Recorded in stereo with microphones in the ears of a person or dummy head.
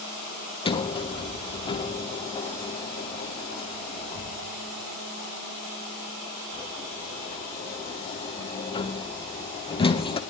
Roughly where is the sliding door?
Left.